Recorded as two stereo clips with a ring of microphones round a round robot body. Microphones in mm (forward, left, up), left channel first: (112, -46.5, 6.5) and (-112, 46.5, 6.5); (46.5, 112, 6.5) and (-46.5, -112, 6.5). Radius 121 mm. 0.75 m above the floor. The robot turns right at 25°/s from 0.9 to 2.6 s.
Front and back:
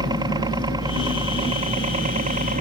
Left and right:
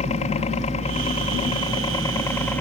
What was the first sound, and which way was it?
A helicopter, 100° left.